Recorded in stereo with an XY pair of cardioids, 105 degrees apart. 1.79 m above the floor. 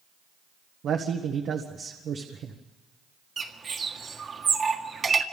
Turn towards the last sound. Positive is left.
turn(degrees=-40)